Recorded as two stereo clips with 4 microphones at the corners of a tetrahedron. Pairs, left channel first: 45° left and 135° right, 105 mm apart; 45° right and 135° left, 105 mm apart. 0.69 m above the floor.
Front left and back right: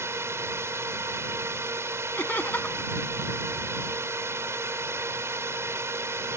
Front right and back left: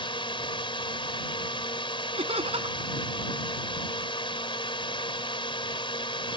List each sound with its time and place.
0.0 s a drone: 75° right
2.2 s laughter: 120° left